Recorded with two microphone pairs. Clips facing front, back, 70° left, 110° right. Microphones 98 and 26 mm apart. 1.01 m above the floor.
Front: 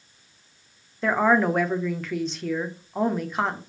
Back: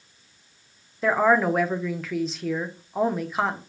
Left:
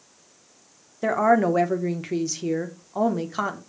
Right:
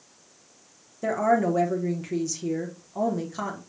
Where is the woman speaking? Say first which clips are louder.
Back 1 dB, left 3 dB; 90° left, 0.8 m.